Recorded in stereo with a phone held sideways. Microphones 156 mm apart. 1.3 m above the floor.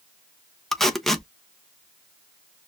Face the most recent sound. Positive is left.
turn(degrees=0)  # may be behind; listen again after turning